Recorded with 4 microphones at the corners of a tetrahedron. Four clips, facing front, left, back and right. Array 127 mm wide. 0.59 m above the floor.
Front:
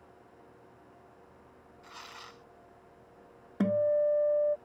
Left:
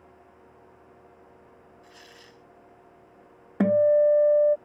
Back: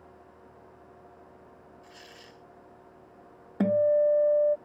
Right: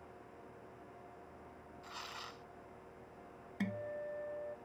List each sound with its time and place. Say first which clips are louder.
1.8 s tearing paper: right 6 dB, front 2 dB; 40° right
3.6 s a guitar: left 23 dB, back 4 dB; 95° left